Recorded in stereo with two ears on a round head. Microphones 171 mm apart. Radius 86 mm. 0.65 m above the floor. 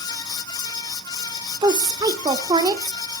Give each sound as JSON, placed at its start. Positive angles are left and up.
{"t": 1.6, "sound": "a woman speaking", "side_deg": -20, "distance_m": 1.6}